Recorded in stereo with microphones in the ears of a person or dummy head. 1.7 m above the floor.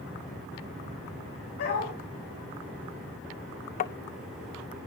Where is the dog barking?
55° left (ahead or behind), 6.5 m.